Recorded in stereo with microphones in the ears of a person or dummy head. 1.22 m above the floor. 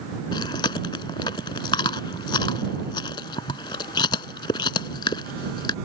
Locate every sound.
0.3 s chewing: 25° left (ahead or behind)